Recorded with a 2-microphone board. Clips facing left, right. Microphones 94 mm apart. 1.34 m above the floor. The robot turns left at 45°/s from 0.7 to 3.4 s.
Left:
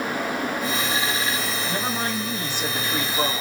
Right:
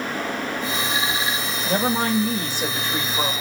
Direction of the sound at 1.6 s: 100° right.